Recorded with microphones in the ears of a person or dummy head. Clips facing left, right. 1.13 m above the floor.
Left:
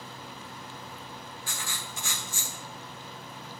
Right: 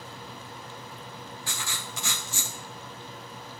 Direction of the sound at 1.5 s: 55° right (ahead or behind).